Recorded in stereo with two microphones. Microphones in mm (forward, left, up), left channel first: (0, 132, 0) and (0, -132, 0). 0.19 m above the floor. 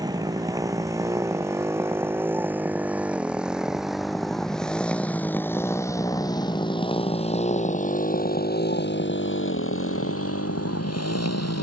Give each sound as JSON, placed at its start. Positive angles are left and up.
{"t": 0.0, "sound": "a motorcycle", "side_deg": -15}